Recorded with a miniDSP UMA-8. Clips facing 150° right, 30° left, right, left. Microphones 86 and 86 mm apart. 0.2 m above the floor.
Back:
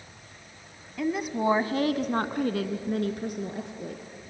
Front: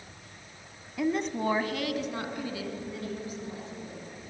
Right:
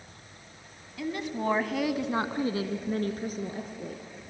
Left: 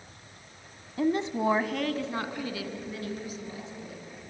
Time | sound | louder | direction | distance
1.0 | a woman speaking | back 1 dB, left 5 dB | 115° left | 1.3 m